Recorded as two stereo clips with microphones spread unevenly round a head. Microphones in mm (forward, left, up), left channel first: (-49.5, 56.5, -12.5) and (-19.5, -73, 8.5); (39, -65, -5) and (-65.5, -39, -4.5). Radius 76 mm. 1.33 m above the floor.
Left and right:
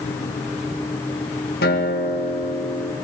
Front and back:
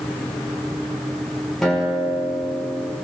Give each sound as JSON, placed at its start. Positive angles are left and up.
{"t": 1.6, "sound": "a guitar", "azimuth_deg": 75, "distance_m": 5.0}